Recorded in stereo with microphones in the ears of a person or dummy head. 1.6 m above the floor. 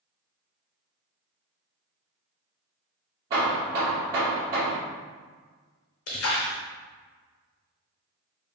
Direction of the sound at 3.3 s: 20° right (ahead or behind).